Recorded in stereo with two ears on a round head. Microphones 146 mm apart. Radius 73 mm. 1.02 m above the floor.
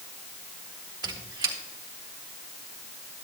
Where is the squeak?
25° right (ahead or behind), 1.7 m.